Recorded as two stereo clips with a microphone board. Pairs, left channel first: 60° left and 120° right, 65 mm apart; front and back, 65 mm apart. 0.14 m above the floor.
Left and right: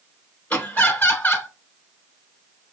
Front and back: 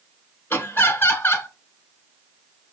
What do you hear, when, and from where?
0.5 s laughter: 25° left, 1.5 m